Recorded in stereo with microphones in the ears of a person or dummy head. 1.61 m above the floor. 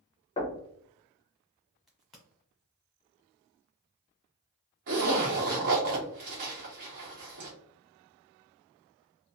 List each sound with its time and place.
0.4 s knocking: 25° left (ahead or behind), 0.8 m
1.9 s a crack: centre (ahead or behind), 0.7 m
4.9 s a zipper: 45° right (ahead or behind), 1.1 m